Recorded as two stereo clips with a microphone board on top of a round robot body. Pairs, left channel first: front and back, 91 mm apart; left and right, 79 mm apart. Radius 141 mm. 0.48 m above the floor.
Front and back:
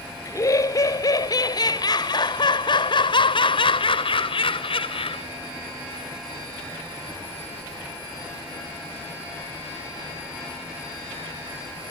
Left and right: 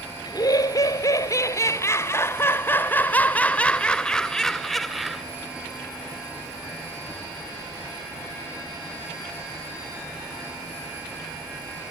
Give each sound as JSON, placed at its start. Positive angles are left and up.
{"t": 0.2, "sound": "laughter", "azimuth_deg": 55}